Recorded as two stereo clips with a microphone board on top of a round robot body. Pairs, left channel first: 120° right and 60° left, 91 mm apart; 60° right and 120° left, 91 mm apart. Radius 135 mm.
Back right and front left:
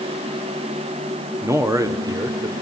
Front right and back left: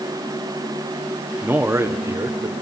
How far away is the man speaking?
About 1.5 m.